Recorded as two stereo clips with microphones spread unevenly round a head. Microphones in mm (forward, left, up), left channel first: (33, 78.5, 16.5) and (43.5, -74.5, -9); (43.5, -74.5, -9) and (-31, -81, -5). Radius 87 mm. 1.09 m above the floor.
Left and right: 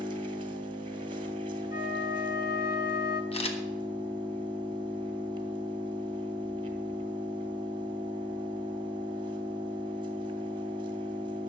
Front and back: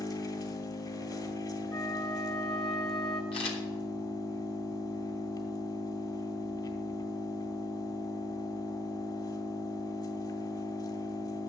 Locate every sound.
0.0 s an engine running: 25° right, 2.5 m
1.7 s a flute: 75° left, 1.1 m
3.3 s a camera shutter: 40° left, 1.5 m